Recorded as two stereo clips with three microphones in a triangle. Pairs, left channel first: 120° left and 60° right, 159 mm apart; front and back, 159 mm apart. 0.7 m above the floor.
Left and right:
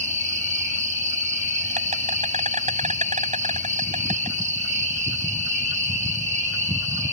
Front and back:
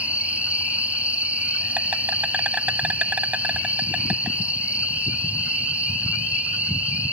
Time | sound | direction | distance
0.0 | an insect | 100° right | ?